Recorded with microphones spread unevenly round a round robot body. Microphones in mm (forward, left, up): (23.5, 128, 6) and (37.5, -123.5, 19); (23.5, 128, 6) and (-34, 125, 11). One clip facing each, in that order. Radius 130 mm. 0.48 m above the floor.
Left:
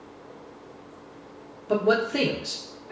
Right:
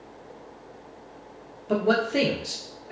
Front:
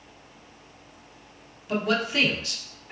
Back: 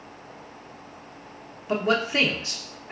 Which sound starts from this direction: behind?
A man speaking, at 1.7 s.